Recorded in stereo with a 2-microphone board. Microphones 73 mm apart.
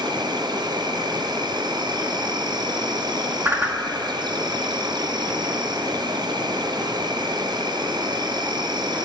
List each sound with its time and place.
0.0 s an insect: 75° right (ahead or behind), 1.0 m
3.5 s a whoosh: 25° right (ahead or behind), 1.5 m